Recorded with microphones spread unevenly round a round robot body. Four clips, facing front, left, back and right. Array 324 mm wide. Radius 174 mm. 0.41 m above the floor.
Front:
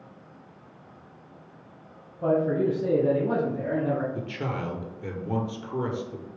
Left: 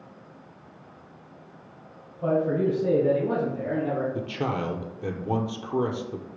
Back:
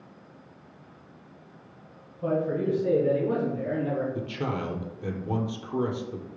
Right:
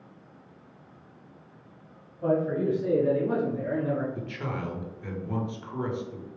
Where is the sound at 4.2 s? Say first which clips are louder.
Left 6 dB, back 1 dB; 85° left, 1.1 m.